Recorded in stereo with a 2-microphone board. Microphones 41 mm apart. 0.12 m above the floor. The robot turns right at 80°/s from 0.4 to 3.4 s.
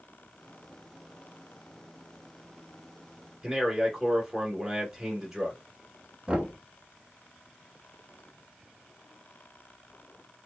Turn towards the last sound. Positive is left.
turn(degrees=-20)  # may be behind; listen again after turning